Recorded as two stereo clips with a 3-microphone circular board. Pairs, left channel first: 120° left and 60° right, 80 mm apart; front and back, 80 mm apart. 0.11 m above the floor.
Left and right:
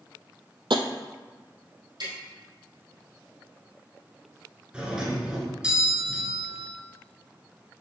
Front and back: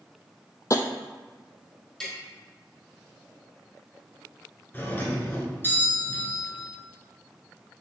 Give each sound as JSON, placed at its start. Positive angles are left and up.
{"t": 0.7, "sound": "tapping", "azimuth_deg": -50, "distance_m": 0.6}
{"t": 2.0, "sound": "tapping", "azimuth_deg": -80, "distance_m": 3.0}
{"t": 4.7, "sound": "a doorbell", "azimuth_deg": 0, "distance_m": 1.6}